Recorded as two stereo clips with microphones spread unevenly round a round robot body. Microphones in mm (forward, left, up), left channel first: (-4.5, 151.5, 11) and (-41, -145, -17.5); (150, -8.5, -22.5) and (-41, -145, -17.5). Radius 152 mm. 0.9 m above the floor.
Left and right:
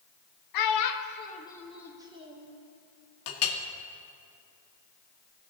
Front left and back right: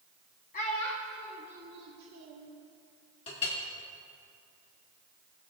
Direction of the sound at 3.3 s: 105° left.